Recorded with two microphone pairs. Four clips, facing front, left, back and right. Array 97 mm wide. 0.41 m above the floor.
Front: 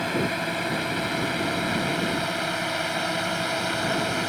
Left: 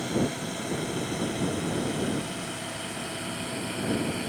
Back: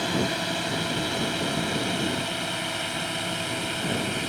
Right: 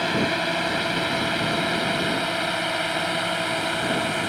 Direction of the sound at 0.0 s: 85° right.